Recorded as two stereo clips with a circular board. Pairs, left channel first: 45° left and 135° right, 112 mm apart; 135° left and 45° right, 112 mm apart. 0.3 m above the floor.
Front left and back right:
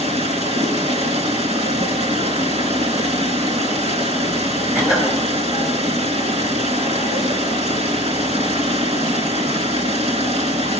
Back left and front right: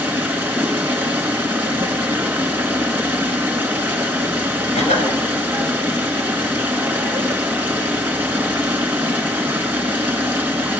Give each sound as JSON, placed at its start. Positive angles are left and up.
{"t": 0.0, "sound": "running water", "azimuth_deg": -120, "distance_m": 2.5}
{"t": 4.8, "sound": "a cough", "azimuth_deg": 145, "distance_m": 5.5}